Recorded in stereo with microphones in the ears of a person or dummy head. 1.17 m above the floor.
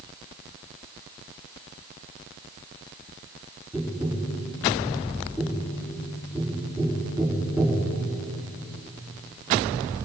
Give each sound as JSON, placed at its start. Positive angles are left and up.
{"t": 3.7, "sound": "tapping", "side_deg": 0, "distance_m": 5.5}